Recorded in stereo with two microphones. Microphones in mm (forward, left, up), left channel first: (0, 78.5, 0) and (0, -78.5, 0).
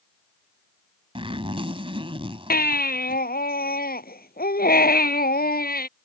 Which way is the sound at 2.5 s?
70° left (ahead or behind).